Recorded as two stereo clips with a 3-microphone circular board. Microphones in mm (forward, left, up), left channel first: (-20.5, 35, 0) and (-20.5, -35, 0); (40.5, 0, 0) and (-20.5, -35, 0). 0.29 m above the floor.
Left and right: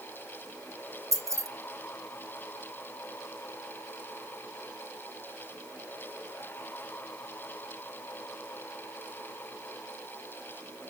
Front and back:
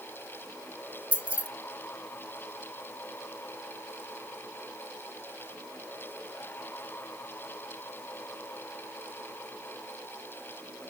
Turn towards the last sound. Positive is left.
turn(degrees=-85)